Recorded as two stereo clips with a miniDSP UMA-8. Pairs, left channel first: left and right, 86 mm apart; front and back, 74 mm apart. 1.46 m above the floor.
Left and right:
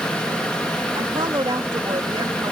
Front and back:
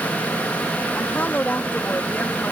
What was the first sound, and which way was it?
A woman speaking, 65° right.